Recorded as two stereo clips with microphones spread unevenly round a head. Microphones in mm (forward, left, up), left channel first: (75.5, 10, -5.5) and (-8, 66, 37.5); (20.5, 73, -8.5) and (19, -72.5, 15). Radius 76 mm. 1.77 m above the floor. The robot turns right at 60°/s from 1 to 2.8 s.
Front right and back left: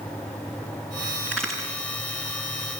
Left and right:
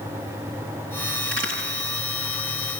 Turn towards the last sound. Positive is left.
turn(degrees=-45)